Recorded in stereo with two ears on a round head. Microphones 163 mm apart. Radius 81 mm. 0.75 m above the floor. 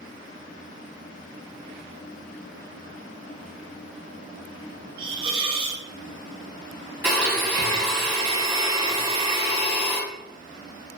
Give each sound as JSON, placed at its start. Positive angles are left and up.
{"t": 5.0, "sound": "a hiss", "side_deg": -25, "distance_m": 0.5}
{"t": 7.0, "sound": "a blender", "side_deg": -10, "distance_m": 1.2}